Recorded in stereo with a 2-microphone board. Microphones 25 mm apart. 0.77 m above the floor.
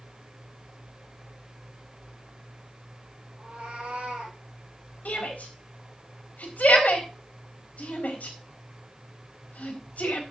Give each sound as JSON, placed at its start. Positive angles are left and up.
{"t": 3.4, "sound": "a cat meowing", "side_deg": -60, "distance_m": 4.5}
{"t": 5.0, "sound": "a shout", "side_deg": 80, "distance_m": 4.0}